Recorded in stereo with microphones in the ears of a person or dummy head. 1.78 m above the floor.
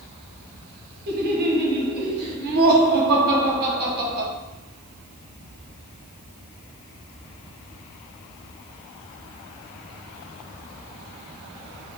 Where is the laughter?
55° right (ahead or behind), 2.5 m.